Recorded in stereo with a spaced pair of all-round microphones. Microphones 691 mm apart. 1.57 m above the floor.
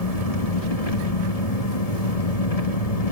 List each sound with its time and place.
0.0 s an engine running: 60° left (ahead or behind), 1.6 m